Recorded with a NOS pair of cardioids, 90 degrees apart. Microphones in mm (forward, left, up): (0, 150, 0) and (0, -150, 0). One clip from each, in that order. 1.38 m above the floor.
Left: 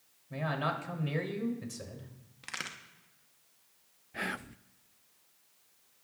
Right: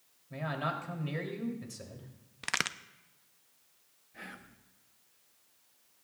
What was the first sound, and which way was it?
A man speaking, 15° left.